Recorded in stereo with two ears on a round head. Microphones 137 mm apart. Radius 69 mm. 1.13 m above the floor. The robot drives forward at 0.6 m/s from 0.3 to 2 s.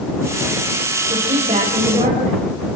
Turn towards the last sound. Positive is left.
turn(degrees=-35)  # may be behind; listen again after turning